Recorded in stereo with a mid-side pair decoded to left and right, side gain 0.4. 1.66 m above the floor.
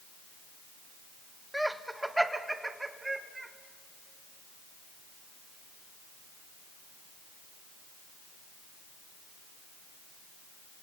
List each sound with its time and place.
1.5 s laughter: straight ahead, 1.4 m; by 3.5 s 25° right, 3 m